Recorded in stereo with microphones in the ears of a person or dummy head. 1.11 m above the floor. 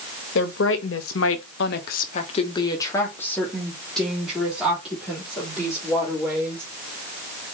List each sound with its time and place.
0.3 s a woman speaking: 65° left (ahead or behind), 1.3 m; by 6.7 s 15° right (ahead or behind), 3.5 m